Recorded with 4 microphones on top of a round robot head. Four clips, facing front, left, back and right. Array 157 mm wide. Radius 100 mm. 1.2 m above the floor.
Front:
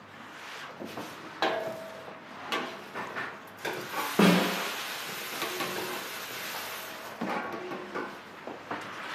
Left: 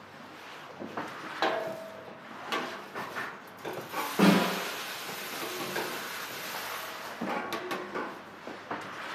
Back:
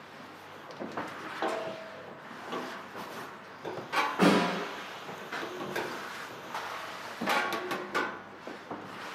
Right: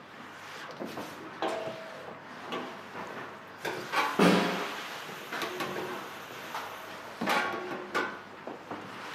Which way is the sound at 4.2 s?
20° right.